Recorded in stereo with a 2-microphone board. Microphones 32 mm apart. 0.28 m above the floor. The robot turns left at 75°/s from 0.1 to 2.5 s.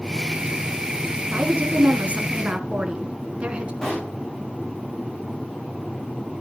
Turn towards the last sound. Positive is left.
turn(degrees=15)  # may be behind; listen again after turning